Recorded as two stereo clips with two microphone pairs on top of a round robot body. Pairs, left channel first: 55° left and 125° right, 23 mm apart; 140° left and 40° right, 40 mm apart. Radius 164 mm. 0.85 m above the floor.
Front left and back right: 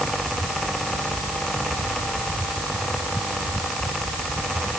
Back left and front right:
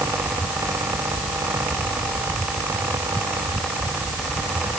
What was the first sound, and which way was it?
Only background noise.